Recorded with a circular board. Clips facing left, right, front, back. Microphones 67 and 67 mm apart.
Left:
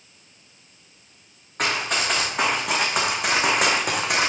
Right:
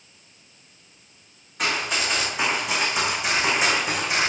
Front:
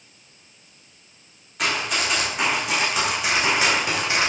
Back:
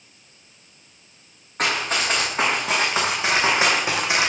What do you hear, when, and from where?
1.6 s running footsteps: 130° left, 3 m; by 4.3 s 110° left, 2 m